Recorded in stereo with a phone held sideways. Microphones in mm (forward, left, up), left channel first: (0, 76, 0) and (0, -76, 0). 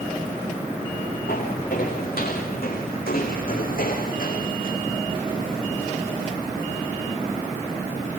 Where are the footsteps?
80° left, 7.5 m; by 4.8 s 65° left (ahead or behind), 5 m.